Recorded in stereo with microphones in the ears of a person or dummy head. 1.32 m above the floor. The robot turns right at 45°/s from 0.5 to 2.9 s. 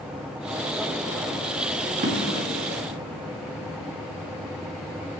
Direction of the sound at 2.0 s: 40° right (ahead or behind).